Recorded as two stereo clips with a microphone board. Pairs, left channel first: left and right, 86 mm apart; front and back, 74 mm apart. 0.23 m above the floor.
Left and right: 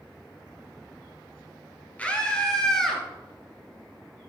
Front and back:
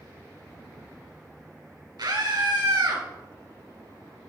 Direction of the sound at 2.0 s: 165° left.